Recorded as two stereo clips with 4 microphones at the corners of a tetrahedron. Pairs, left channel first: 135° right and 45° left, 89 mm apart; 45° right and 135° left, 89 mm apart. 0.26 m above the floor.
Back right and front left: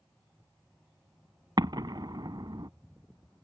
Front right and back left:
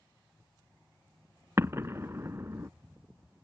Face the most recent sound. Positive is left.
turn(degrees=80)